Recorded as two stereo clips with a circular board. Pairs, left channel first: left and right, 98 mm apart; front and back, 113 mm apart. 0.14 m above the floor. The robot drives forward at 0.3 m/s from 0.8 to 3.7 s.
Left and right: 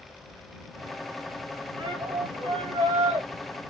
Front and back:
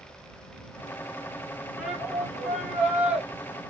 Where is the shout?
90° right, 2.5 m; by 3.3 s 100° right, 2.5 m.